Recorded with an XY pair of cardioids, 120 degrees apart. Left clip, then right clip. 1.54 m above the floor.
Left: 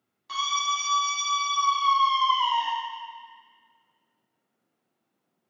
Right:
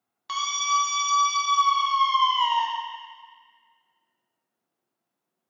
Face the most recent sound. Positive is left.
turn(degrees=-55)